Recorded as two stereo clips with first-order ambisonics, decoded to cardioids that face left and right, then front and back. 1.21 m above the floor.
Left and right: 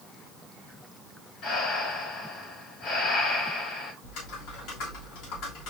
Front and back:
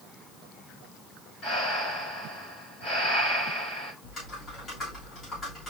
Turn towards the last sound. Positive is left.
turn(degrees=65)